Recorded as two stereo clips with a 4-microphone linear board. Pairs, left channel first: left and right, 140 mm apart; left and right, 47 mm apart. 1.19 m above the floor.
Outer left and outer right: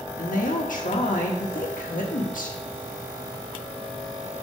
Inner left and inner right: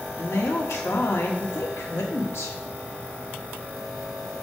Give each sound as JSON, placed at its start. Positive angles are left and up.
{"t": 0.2, "sound": "a woman speaking", "side_deg": 75, "distance_m": 1.5}